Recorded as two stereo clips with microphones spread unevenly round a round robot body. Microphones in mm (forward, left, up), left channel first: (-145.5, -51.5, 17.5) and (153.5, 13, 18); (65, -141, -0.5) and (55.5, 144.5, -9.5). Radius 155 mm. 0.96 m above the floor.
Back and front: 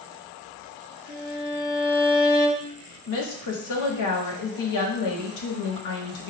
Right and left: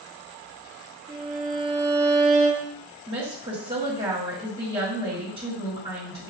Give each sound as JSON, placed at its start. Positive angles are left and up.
{"t": 1.1, "sound": "a violin", "azimuth_deg": 160, "distance_m": 1.3}
{"t": 3.1, "sound": "a woman speaking", "azimuth_deg": 165, "distance_m": 1.5}